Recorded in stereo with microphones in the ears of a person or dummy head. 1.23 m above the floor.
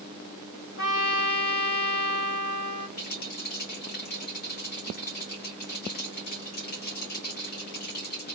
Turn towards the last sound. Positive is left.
turn(degrees=50)  # may be behind; listen again after turning